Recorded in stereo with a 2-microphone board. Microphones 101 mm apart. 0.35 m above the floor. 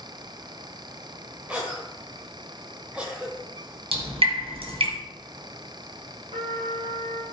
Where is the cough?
10° right (ahead or behind), 1.5 m.